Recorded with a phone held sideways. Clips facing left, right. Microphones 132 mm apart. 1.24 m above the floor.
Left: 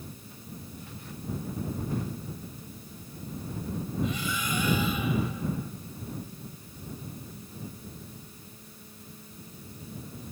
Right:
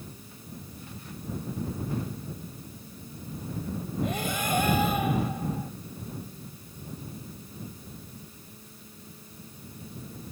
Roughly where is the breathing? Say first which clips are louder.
Right 4 dB; right.